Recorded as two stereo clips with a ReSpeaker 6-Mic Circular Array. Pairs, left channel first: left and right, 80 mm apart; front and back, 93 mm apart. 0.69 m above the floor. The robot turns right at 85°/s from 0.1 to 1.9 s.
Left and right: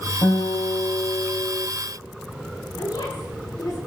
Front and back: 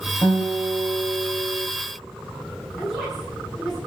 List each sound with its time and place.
0.2 s a guitar: 55° left, 3.5 m; by 1.6 s straight behind, 3.5 m
2.8 s a woman speaking: 90° left, 8.5 m